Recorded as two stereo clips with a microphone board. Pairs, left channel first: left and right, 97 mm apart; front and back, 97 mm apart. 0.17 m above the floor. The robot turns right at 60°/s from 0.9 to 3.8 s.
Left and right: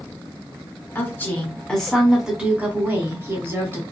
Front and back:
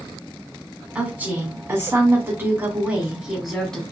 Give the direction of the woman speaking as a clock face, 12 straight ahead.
8 o'clock.